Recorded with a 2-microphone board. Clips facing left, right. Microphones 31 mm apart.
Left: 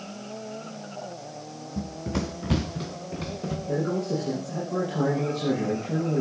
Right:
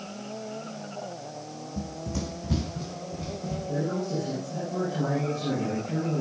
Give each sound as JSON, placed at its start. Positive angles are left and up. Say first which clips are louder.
{"t": 1.8, "sound": "running footsteps", "louder": "left 4 dB", "side_deg": 35, "distance_m": 0.8}
{"t": 3.7, "sound": "a man speaking", "louder": "left 3 dB", "side_deg": 75, "distance_m": 6.5}